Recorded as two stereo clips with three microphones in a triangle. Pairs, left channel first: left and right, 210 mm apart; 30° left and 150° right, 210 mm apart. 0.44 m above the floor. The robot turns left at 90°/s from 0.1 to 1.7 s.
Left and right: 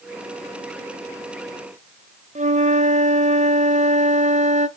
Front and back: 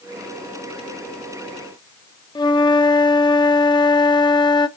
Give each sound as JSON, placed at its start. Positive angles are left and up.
{"t": 2.4, "sound": "a flute", "azimuth_deg": -40, "distance_m": 0.6}